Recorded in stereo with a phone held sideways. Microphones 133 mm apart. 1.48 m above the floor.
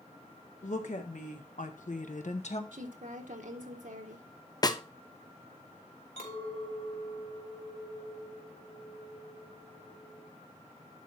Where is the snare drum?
30° left (ahead or behind), 0.6 m.